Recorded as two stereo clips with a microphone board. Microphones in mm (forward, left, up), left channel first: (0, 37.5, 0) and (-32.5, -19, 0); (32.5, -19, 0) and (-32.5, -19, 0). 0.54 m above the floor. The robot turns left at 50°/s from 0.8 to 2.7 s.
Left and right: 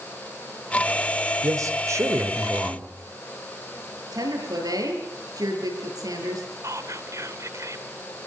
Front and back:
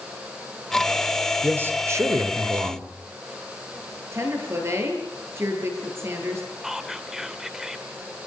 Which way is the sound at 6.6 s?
100° right.